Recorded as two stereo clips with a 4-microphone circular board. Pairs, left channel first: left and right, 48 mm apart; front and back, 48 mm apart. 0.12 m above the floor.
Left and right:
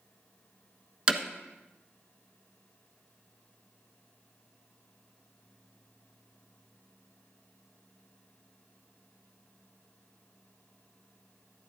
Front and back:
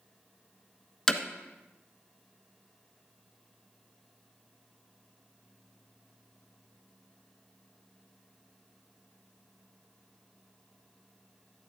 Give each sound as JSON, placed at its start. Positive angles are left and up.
{"t": 1.1, "sound": "hammering", "azimuth_deg": -60, "distance_m": 1.3}